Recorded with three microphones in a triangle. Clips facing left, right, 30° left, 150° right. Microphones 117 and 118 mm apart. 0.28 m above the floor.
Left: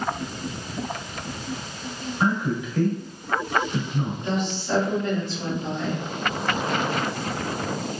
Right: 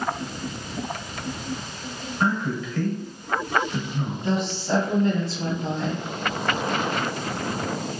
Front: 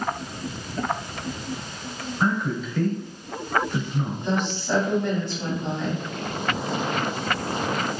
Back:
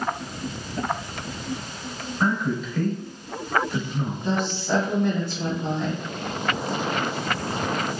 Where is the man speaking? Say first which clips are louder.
Left 1 dB, back 1 dB; 125° left, 1.0 m.